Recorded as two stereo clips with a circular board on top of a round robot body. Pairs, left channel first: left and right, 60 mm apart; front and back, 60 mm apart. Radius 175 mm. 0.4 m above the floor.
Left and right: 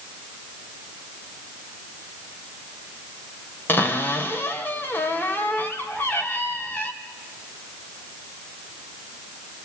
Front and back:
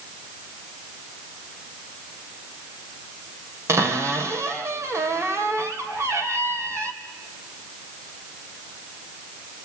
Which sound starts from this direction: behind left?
A cupboard door, at 3.7 s.